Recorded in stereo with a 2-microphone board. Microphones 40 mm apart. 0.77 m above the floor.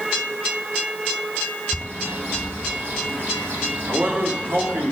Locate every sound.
1.7 s a bird: 55° right (ahead or behind), 1.9 m
3.9 s a man speaking: 60° right (ahead or behind), 2.5 m